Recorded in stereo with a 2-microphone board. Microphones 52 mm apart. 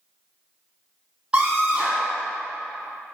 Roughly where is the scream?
Right.